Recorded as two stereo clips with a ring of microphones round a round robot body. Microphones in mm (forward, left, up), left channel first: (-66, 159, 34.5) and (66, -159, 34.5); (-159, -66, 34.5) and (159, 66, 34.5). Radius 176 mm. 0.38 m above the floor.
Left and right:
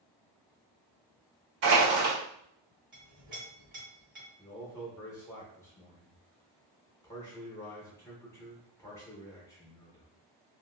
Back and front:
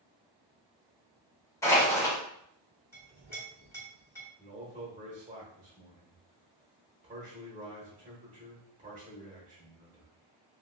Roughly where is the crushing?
Right.